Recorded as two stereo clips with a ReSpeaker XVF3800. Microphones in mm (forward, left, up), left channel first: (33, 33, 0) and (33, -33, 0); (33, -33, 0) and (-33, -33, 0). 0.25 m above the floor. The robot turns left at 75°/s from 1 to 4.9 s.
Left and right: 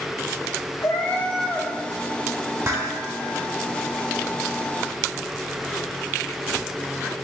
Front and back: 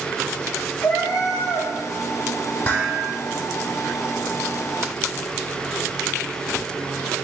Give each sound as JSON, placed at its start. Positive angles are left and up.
{"t": 0.8, "sound": "a cat meowing", "azimuth_deg": 40, "distance_m": 1.7}
{"t": 2.6, "sound": "dishes clattering", "azimuth_deg": -65, "distance_m": 1.1}